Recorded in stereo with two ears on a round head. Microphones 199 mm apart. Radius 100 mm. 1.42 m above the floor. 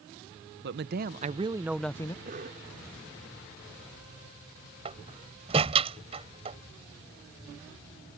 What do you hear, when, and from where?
0.6 s a man speaking: 55° right (ahead or behind); by 2.1 s 20° left (ahead or behind)
2.2 s a cough: 40° right (ahead or behind)
4.8 s a door slam: 30° right (ahead or behind)